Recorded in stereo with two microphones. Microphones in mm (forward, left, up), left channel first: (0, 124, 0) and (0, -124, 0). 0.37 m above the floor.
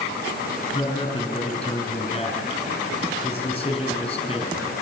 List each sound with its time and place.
0.7 s a man speaking: 25° left (ahead or behind), 5 m